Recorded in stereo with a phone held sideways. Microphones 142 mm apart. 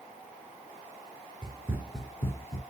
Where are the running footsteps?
35° right (ahead or behind), 0.9 m; by 2.6 s 30° left (ahead or behind), 1.1 m.